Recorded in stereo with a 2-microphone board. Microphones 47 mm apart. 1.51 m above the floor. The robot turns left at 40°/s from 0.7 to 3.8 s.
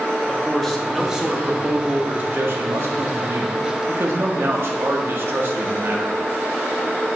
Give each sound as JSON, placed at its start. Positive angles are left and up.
{"t": 0.3, "sound": "a man speaking", "azimuth_deg": 5, "distance_m": 0.8}